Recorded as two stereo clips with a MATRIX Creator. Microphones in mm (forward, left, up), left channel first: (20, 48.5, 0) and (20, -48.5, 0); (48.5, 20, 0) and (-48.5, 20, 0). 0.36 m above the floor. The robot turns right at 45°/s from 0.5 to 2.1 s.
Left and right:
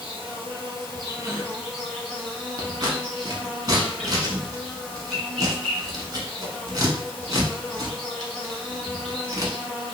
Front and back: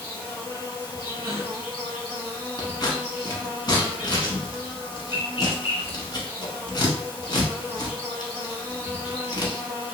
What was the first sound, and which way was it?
An insect, 65° right.